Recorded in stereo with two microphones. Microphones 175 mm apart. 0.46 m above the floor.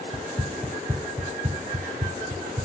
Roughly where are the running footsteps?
Centre.